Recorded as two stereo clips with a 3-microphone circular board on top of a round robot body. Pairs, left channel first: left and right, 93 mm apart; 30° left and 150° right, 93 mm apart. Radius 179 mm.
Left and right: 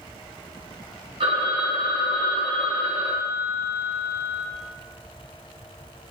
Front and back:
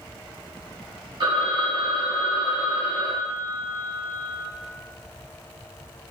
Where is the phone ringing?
110° right, 1.0 m.